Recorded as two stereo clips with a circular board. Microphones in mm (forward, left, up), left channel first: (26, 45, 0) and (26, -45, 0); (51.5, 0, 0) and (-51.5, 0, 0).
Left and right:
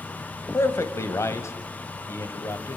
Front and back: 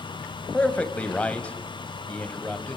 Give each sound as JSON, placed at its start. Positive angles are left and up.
{"t": 0.5, "sound": "a man speaking", "azimuth_deg": 70, "distance_m": 1.8}